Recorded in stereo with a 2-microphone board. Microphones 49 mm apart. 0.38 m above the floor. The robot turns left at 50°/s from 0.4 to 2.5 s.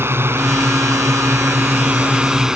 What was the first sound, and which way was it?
A drone, 60° right.